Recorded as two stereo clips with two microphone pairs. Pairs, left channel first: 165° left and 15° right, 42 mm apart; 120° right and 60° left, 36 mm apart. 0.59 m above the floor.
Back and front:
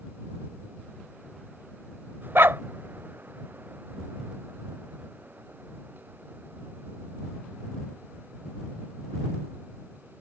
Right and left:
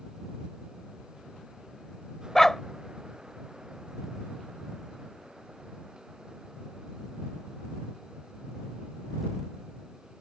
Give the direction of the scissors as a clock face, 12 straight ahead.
I don't hear scissors.